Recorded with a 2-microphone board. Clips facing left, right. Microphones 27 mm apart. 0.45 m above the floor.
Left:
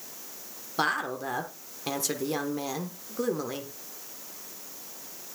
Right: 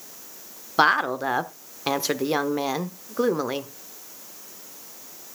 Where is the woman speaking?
35° right (ahead or behind), 0.8 m.